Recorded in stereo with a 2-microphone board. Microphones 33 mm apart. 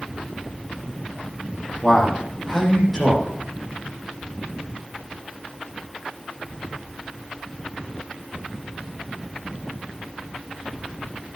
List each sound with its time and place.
1.8 s a man speaking: 5° left (ahead or behind), 7.5 m